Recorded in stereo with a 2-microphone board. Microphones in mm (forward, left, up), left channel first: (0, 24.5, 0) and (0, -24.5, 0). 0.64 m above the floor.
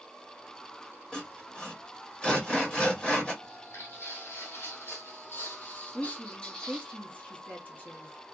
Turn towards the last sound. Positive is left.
turn(degrees=30)  # may be behind; listen again after turning